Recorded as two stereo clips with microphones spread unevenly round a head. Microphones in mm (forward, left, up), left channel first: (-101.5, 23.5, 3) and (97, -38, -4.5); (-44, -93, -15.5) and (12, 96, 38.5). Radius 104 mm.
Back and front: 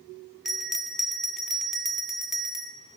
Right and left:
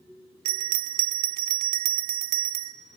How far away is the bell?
About 0.5 m.